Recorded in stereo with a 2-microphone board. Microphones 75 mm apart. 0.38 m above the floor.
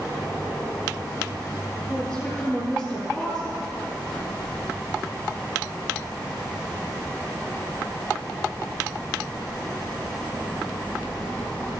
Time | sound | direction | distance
1.9 | a woman speaking | 15° left (ahead or behind) | 6 m